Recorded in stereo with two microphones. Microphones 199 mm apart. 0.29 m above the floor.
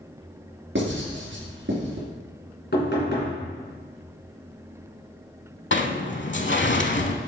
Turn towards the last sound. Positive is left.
turn(degrees=70)  # may be behind; listen again after turning